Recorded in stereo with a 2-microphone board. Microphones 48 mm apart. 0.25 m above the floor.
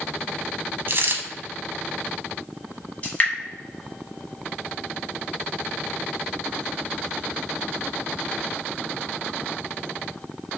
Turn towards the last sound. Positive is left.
turn(degrees=30)  # may be behind; listen again after turning